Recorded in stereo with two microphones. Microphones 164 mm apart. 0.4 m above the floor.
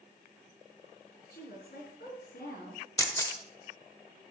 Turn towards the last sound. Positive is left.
turn(degrees=20)  # may be behind; listen again after turning